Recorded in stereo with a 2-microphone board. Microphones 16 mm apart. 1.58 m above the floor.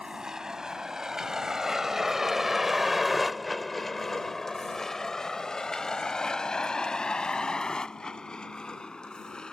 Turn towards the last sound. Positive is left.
turn(degrees=80)